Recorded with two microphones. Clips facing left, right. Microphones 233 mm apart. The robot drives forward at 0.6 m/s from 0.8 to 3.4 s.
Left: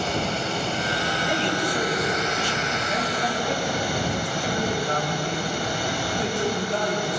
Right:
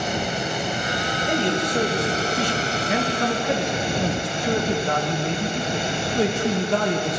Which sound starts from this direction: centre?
Running water, at 0.0 s.